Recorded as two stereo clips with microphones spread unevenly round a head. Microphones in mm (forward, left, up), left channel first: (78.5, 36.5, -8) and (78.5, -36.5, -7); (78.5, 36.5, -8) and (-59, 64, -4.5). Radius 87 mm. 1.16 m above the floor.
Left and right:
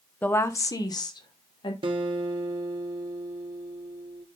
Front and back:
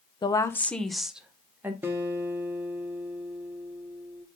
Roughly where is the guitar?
Right.